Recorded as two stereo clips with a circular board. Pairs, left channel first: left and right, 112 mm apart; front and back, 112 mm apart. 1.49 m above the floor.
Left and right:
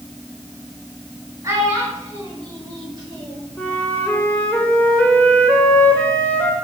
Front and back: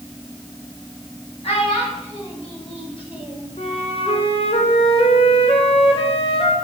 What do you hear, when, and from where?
1.4 s a child speaking: 25° right, 7 m; by 3.5 s 40° right, 4.5 m
3.6 s a flute: 15° left, 2.5 m